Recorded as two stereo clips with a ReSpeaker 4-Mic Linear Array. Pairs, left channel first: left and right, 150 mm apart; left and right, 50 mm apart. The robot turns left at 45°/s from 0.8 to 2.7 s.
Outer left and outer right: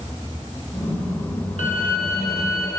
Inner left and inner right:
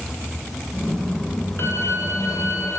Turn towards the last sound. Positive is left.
turn(degrees=70)